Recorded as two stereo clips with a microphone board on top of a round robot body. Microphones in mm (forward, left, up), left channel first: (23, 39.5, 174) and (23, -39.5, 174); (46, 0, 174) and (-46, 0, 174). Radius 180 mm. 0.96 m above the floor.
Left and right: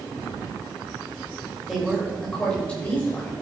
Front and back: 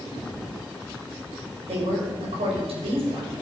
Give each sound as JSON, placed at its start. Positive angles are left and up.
{"t": 1.7, "sound": "a woman speaking", "azimuth_deg": -175, "distance_m": 5.0}